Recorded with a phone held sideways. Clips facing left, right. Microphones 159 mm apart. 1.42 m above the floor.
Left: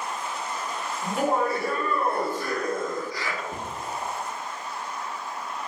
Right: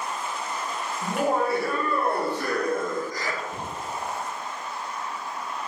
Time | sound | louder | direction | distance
1.0 | laughter | even | 75° right (ahead or behind) | 1.9 m
3.5 | a cupboard door | even | 50° left (ahead or behind) | 0.9 m